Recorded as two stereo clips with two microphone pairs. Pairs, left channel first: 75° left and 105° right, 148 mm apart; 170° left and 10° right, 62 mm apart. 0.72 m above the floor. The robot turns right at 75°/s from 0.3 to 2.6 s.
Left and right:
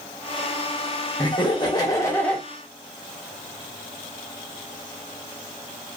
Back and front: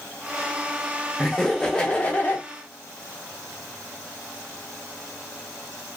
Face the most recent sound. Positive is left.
turn(degrees=170)